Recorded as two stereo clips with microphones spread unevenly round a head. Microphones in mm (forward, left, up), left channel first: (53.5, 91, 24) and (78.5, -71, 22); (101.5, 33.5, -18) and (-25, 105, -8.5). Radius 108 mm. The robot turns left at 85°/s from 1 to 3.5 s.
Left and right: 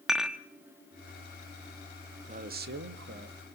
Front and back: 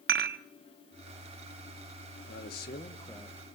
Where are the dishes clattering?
170° right, 0.8 m.